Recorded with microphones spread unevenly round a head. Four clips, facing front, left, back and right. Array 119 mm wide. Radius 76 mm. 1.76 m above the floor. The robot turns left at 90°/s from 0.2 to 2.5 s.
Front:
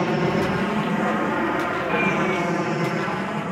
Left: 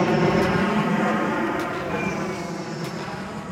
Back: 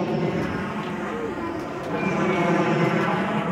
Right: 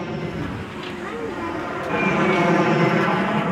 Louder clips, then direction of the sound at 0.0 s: Left 9 dB, front 3 dB; 125° left.